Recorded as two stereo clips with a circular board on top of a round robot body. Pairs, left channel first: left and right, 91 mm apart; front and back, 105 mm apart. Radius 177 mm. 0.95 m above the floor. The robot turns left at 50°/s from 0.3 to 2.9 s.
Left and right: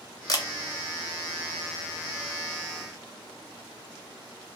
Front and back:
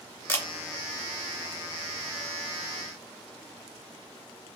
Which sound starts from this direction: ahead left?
A camera shutter, at 0.3 s.